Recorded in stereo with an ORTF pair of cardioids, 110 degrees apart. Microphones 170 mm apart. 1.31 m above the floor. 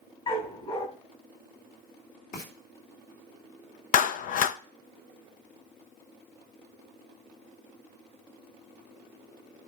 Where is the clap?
55° left, 0.5 m.